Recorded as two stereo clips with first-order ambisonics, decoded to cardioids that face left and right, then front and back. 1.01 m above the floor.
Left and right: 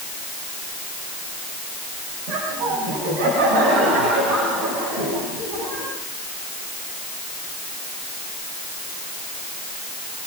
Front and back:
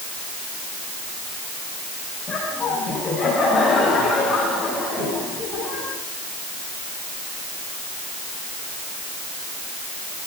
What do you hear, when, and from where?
2.3 s laughter: 75° right, 7 m; by 5.9 s 80° right, 9.5 m